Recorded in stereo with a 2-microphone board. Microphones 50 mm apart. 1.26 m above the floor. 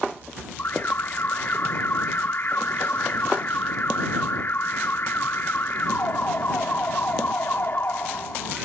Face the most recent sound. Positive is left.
turn(degrees=45)  # may be behind; listen again after turning